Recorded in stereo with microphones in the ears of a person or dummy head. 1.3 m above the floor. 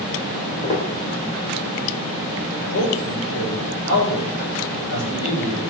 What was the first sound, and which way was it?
Footsteps, 30° left (ahead or behind).